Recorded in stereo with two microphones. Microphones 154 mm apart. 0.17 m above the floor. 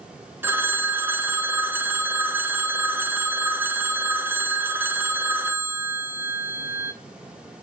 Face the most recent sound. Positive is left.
turn(degrees=-15)  # may be behind; listen again after turning